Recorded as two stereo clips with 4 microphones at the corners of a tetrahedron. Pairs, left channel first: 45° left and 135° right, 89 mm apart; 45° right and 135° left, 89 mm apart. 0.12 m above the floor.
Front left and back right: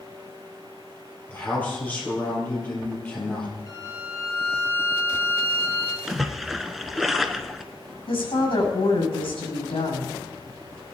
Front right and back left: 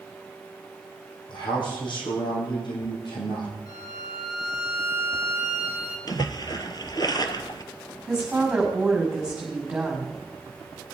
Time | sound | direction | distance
1.3 | a man speaking | 25° right | 4.5 m
3.7 | a violin | 5° right | 2.5 m
6.1 | a splash | 50° right | 0.9 m
8.1 | a woman speaking | 55° left | 5.5 m